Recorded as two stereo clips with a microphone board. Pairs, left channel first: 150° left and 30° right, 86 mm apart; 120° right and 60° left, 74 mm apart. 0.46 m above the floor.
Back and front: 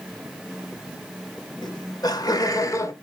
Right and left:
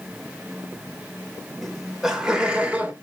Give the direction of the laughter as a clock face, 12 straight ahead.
7 o'clock.